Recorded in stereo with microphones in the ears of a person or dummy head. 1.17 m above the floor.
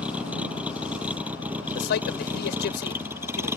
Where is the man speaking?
50° left (ahead or behind).